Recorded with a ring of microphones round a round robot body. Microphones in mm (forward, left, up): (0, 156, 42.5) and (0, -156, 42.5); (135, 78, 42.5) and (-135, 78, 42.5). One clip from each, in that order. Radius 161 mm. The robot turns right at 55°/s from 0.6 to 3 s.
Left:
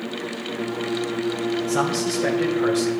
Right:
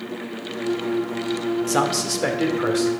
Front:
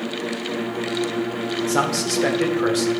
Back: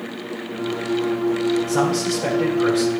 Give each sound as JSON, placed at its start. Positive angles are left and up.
{"t": 1.7, "sound": "a man speaking", "azimuth_deg": -60, "distance_m": 1.3}